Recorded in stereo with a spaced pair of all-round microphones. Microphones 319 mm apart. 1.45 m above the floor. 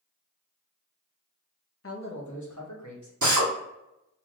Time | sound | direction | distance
1.8 | a man speaking | 45° left (ahead or behind) | 0.6 m
3.2 | a drill | 70° right (ahead or behind) | 0.8 m